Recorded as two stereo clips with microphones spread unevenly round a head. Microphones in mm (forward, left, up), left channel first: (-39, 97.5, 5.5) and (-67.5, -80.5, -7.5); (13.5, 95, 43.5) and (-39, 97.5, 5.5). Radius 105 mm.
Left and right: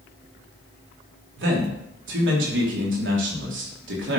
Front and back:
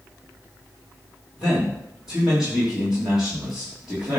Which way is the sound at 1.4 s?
105° right.